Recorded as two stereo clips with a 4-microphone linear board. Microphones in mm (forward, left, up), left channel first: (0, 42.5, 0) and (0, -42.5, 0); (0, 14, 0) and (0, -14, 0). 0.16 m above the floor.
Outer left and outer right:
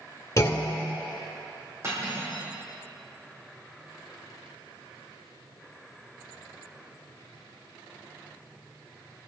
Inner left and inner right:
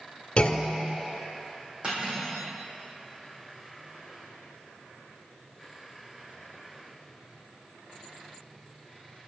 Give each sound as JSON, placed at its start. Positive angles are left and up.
{"t": 0.4, "sound": "a clunk", "side_deg": 35, "distance_m": 1.6}
{"t": 1.8, "sound": "cutlery clinking", "side_deg": -35, "distance_m": 5.0}